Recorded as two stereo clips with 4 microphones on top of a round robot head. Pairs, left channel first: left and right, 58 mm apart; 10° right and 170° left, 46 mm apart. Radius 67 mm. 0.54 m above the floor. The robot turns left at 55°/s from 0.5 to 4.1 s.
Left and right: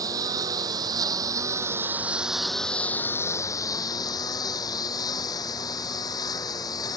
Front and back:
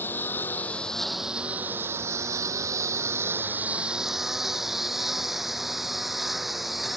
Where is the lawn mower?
65° right; by 7.0 s 80° left.